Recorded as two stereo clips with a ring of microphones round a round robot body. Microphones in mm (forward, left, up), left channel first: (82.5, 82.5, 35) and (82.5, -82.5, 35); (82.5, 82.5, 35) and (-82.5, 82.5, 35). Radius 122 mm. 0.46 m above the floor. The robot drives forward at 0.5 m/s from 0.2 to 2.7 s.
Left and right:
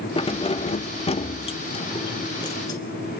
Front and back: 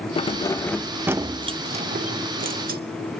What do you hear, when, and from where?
0.2 s keys jangling: 45° left, 0.7 m; by 2.8 s 160° left, 1.1 m